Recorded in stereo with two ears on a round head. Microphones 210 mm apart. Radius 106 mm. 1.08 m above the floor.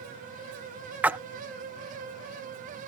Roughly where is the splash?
Centre.